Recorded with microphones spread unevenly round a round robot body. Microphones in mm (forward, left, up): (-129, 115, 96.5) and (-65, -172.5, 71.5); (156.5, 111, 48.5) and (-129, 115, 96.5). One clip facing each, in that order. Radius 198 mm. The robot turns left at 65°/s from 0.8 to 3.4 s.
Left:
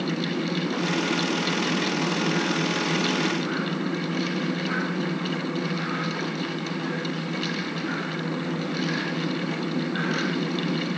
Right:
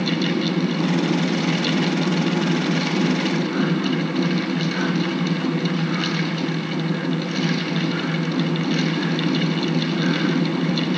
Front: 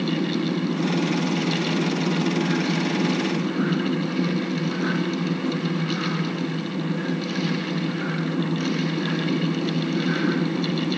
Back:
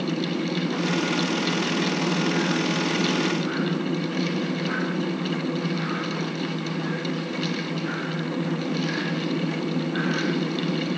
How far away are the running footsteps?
I don't hear running footsteps.